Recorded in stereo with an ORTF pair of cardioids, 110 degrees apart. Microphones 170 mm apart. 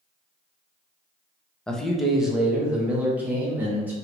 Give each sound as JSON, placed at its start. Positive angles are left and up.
{"t": 1.7, "sound": "a man speaking", "azimuth_deg": 5, "distance_m": 0.6}